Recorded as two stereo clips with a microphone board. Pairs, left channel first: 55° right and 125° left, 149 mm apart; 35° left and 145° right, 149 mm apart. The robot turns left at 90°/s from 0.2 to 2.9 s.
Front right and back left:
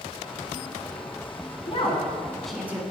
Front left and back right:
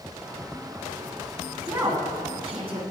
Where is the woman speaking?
70° right, 1.6 m; by 2.8 s 175° right, 1.6 m.